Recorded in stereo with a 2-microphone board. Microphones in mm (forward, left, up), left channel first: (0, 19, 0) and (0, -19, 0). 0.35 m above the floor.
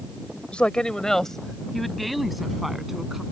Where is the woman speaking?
30° left (ahead or behind); by 3.2 s 10° right (ahead or behind).